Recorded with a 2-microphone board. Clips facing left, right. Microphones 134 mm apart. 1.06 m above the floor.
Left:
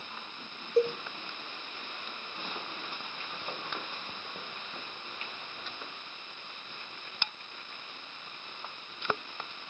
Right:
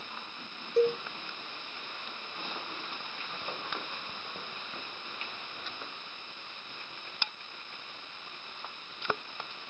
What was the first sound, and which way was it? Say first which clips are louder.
A cowbell: right 1 dB; 5° left (ahead or behind).